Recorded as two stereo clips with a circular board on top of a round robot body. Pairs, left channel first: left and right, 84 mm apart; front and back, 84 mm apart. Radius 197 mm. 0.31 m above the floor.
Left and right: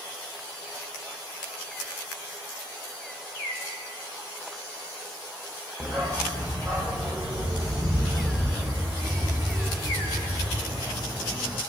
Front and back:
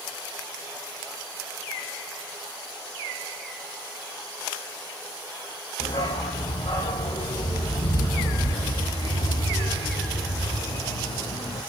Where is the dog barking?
Straight ahead, 4.5 m; by 11.6 s 15° right, 7.5 m.